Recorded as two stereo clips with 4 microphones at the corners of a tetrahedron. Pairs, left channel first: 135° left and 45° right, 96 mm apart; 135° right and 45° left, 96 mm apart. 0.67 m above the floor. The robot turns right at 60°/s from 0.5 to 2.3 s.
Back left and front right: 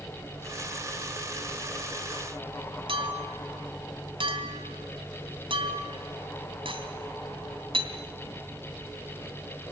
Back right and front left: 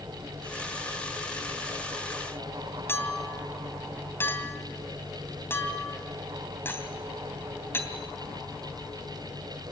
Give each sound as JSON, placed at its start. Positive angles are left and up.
{"t": 2.9, "sound": "a clink", "azimuth_deg": -70, "distance_m": 2.5}